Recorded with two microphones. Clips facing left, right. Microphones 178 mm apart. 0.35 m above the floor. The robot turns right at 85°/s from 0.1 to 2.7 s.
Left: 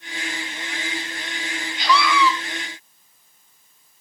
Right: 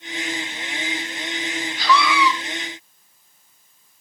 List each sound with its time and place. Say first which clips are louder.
1.8 s a scream: even; 155° left, 4.5 m; by 2.3 s 160° right, 4.5 m